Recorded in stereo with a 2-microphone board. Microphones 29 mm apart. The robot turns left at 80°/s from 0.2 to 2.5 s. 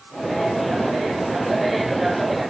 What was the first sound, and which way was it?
Only background noise.